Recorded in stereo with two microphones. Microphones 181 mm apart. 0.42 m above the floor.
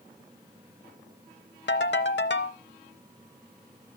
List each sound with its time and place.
1.7 s a ringtone: 80° left, 0.8 m